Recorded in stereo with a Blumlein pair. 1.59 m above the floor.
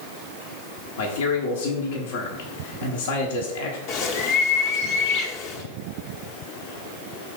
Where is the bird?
40° left, 1.1 m.